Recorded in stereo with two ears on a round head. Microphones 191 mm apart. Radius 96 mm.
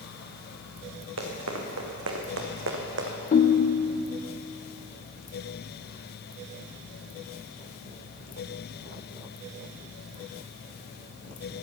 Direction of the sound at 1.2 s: 80° right.